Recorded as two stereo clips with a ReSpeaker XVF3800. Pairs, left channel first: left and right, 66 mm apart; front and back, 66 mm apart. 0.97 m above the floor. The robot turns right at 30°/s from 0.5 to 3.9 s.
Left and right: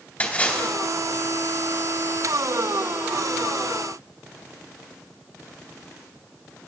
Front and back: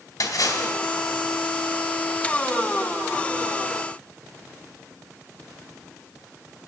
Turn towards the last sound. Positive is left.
turn(degrees=125)